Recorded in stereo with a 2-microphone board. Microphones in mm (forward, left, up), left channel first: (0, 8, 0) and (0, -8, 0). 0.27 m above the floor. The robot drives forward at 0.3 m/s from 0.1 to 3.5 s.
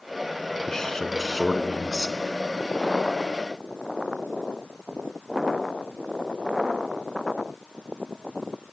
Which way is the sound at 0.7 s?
35° left (ahead or behind).